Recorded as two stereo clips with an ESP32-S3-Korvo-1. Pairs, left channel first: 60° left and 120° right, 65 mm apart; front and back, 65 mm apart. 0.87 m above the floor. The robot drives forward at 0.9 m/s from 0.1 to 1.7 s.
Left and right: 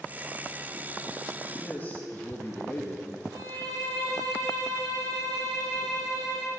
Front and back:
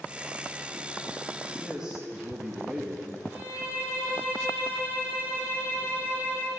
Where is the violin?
115° right, 3 m.